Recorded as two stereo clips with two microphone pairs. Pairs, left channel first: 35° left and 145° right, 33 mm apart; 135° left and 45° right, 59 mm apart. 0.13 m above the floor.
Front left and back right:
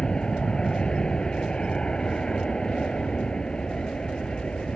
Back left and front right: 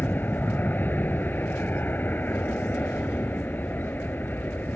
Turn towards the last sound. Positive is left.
turn(degrees=90)